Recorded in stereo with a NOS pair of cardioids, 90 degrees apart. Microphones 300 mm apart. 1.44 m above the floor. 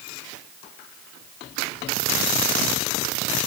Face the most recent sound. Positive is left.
No sound to turn to.